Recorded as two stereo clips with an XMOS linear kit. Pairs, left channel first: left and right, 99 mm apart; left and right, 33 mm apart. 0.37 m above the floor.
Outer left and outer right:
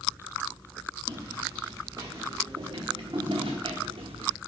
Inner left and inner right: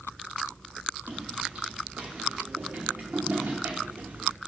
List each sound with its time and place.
1.1 s footsteps: 30° right (ahead or behind), 2.5 m; by 4.3 s 75° right (ahead or behind), 1.1 m